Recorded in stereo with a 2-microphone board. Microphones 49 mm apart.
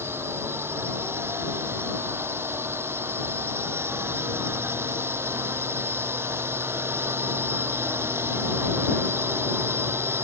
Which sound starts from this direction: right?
A drone, at 0.0 s.